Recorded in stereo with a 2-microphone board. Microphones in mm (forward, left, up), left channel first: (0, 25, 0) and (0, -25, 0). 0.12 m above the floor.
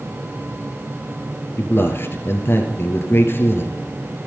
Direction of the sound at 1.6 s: 55° left (ahead or behind).